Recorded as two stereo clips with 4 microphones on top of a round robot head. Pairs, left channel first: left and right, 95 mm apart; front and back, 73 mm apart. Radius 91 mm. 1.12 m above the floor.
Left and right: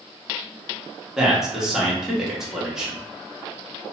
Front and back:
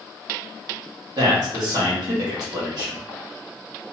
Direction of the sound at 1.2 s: 175° right.